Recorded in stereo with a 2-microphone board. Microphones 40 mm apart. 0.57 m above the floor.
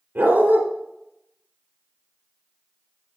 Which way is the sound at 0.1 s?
70° right (ahead or behind).